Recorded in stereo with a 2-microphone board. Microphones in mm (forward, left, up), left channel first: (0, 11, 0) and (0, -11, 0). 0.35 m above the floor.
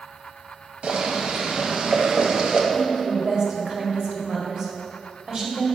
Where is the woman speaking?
40° right (ahead or behind), 1.6 m.